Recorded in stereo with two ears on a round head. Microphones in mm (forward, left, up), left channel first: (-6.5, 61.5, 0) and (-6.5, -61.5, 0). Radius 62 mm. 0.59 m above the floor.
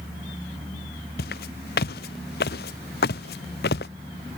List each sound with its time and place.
1.2 s footsteps: 85° left; by 3.9 s 90° left